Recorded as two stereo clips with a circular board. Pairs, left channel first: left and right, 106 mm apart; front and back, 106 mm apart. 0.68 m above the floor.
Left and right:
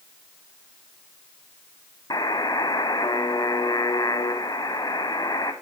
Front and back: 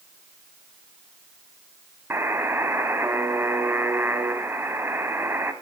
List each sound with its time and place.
2.1 s a buzzer: 120° left, 0.7 m